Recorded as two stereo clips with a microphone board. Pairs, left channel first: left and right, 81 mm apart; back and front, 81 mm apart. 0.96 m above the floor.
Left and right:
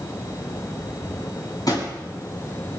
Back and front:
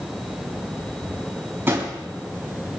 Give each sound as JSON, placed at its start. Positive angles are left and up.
{"t": 1.7, "sound": "a drawer", "azimuth_deg": 60, "distance_m": 5.0}